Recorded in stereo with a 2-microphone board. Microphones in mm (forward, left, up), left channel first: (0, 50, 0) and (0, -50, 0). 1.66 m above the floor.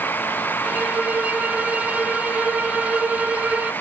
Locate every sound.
0.6 s a violin: 15° right (ahead or behind), 1.2 m